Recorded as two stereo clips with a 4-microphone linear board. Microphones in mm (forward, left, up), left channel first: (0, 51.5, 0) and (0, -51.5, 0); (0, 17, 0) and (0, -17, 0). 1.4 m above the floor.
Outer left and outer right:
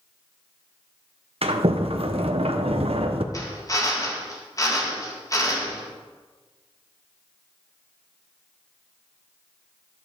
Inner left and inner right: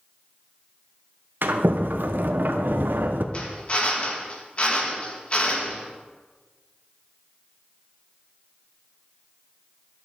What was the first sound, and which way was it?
A sliding door, 70° right (ahead or behind).